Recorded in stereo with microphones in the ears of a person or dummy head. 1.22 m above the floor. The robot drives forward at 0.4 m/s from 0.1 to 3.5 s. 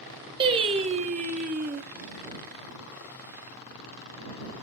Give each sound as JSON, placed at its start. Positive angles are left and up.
{"t": 0.4, "sound": "singing", "side_deg": -30, "distance_m": 0.9}